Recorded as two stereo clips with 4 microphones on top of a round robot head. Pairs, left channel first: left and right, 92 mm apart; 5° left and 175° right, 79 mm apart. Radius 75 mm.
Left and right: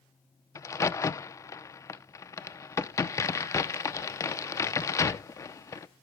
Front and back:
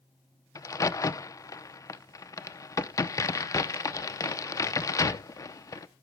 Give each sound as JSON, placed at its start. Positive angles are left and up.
{"t": 0.6, "sound": "a crack", "azimuth_deg": 40, "distance_m": 0.8}